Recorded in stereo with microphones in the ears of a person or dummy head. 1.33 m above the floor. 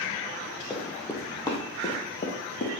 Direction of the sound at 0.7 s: Centre (ahead or behind).